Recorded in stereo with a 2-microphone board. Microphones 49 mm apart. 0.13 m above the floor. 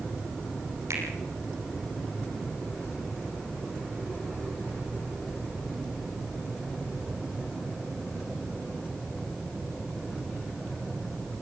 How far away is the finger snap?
About 4 m.